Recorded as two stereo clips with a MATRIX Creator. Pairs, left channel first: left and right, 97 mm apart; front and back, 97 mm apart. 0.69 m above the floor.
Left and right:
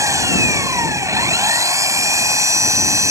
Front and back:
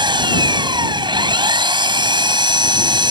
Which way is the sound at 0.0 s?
145° right.